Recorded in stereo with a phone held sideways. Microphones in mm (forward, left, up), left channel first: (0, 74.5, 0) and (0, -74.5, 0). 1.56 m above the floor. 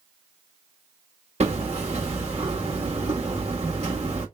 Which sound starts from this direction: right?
Hammering, at 1.4 s.